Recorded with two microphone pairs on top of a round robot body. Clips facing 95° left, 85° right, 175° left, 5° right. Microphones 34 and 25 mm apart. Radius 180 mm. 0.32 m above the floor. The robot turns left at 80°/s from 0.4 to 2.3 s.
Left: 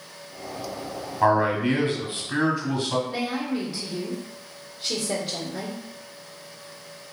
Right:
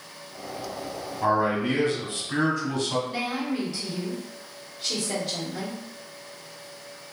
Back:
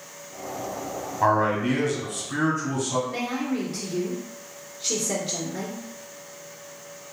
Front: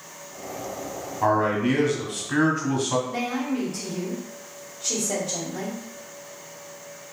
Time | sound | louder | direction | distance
1.2 | a man speaking | left 3 dB, even | 115° left | 1.2 m
3.1 | a woman speaking | left 1 dB, front 1 dB | 175° left | 1.9 m